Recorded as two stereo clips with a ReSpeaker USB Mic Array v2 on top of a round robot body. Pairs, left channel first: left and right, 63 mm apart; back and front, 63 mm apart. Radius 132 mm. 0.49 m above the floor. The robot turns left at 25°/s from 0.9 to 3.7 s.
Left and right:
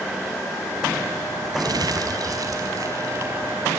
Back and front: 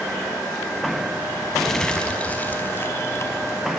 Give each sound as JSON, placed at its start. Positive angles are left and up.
{"t": 1.5, "sound": "crumpling", "azimuth_deg": -95, "distance_m": 5.5}